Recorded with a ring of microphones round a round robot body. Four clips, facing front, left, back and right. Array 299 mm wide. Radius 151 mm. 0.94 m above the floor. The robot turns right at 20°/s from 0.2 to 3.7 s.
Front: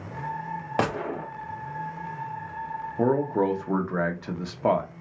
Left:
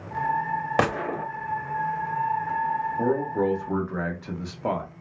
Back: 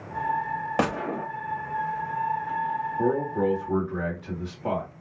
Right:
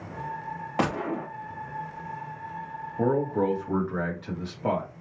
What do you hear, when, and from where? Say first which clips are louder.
0.8 s a gunshot: even, front 1 dB; 80° left, 0.8 m; by 1.3 s 90° left, 0.8 m
3.0 s a man speaking: right 2 dB, front 3 dB; 10° right, 0.9 m; by 4.9 s 5° left, 0.9 m